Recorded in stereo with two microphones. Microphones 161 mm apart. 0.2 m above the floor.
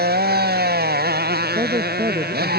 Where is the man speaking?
35° right (ahead or behind).